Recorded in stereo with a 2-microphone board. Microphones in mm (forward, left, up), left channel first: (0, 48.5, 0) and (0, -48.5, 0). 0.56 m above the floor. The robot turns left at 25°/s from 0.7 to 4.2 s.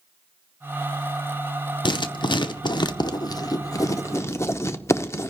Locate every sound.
1.9 s writing: 55° left (ahead or behind), 0.7 m; by 5.3 s 30° left (ahead or behind), 0.7 m